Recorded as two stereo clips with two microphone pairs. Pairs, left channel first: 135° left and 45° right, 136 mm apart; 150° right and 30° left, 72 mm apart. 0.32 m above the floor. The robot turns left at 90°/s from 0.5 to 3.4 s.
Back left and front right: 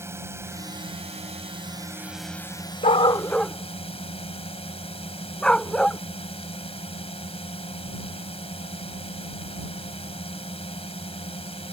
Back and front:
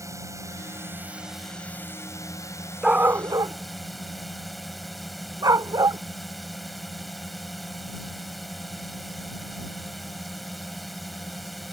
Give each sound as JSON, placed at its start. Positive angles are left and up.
{"t": 0.0, "sound": "a drone", "azimuth_deg": 20}
{"t": 2.8, "sound": "a dog barking", "azimuth_deg": 105}